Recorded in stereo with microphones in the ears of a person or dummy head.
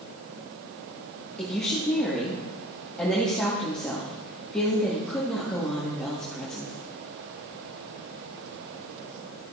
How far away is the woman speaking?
About 2 m.